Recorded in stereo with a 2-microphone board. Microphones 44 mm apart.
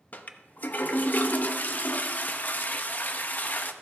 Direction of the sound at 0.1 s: 45° left (ahead or behind).